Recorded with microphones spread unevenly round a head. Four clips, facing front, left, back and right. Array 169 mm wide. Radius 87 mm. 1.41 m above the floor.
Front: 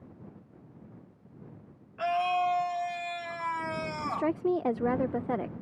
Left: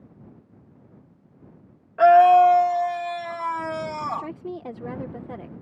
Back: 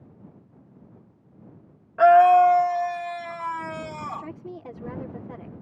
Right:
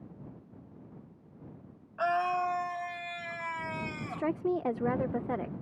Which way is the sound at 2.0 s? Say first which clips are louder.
Left 17 dB, back 14 dB; 125° left.